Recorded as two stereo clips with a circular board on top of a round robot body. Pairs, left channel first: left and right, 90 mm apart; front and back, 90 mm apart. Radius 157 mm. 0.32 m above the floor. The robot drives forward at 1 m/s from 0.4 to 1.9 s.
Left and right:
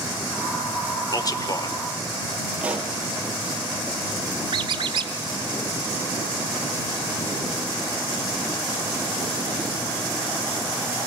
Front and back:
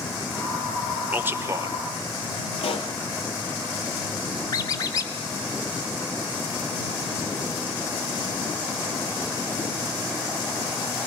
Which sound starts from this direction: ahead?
A pop, at 2.6 s.